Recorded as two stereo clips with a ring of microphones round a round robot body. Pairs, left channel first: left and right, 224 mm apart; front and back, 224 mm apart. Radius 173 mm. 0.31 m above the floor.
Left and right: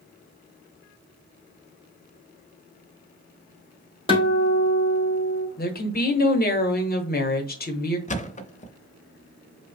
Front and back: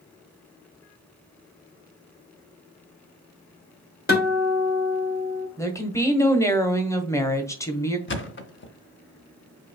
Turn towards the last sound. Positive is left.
turn(degrees=30)